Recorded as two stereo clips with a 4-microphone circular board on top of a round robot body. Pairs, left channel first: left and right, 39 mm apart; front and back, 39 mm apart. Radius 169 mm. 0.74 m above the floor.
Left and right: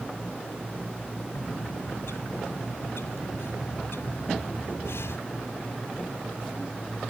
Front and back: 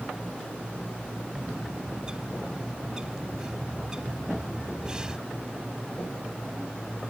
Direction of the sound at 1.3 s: 110° left.